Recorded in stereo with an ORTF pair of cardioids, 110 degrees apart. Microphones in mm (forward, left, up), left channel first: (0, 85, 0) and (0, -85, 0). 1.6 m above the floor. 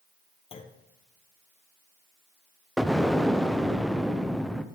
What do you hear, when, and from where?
0.5 s a clunk: 35° left, 1.1 m
2.8 s an explosion: straight ahead, 0.6 m